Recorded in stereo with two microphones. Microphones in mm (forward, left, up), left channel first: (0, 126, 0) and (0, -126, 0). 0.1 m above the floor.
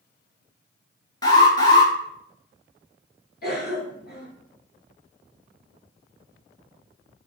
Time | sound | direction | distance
1.2 | an alarm | 15° left (ahead or behind) | 1.0 m
3.4 | a cough | 40° left (ahead or behind) | 1.3 m